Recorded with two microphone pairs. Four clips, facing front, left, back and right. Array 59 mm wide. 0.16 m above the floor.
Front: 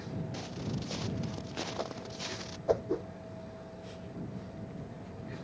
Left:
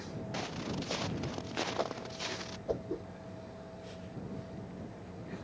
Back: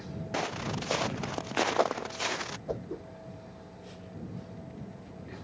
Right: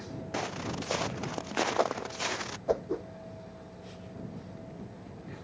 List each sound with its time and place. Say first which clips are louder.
0.3 s footsteps: right 4 dB, back 6 dB; 150° right; by 2.6 s 130° right
2.7 s a whoosh: right 6 dB, front 10 dB; 55° right